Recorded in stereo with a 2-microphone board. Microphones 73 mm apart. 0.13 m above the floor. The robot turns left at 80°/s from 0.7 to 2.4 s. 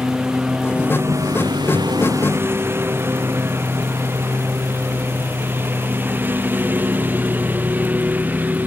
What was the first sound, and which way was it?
A lawn mower, 10° right (ahead or behind).